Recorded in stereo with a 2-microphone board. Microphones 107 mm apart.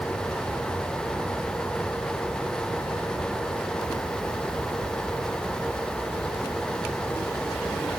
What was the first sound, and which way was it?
Only background noise.